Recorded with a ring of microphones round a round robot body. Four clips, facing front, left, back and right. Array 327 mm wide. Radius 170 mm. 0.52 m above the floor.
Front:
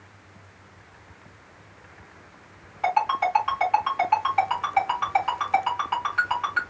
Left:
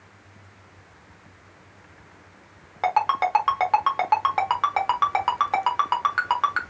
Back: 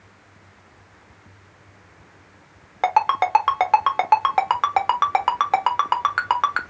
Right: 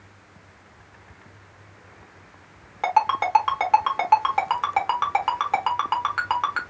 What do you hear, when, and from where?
2.8 s a ringtone: 175° left, 1.3 m